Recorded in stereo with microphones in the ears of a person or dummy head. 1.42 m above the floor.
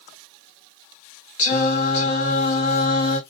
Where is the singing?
50° left (ahead or behind), 2 m.